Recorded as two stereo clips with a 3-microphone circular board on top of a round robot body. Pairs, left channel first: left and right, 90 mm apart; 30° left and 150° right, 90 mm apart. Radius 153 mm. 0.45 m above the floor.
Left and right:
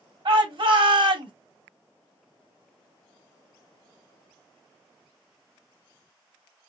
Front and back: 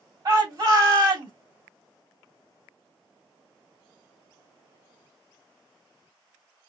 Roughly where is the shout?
Behind right.